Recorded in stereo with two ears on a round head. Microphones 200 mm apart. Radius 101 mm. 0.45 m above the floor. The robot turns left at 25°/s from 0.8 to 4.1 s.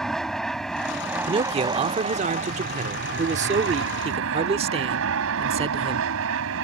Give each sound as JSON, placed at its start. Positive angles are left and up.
{"t": 0.0, "sound": "an aircraft", "azimuth_deg": 0}
{"t": 1.3, "sound": "a man speaking", "azimuth_deg": -50}